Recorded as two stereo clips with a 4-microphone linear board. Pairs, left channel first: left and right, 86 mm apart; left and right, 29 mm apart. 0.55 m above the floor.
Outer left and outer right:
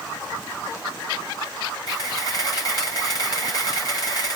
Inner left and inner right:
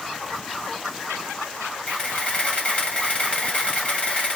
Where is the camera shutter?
45° left (ahead or behind), 3.5 m.